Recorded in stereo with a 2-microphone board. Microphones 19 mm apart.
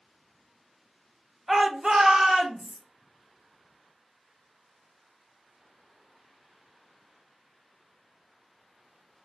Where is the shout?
15° right (ahead or behind), 0.8 m; by 2.8 s 35° right (ahead or behind), 1.4 m.